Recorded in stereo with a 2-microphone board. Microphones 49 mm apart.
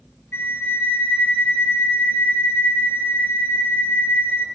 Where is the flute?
50° left (ahead or behind), 2 m.